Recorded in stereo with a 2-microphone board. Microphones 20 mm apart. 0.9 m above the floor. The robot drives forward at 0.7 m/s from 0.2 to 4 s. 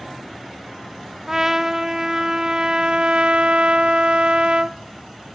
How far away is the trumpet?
About 1.8 m.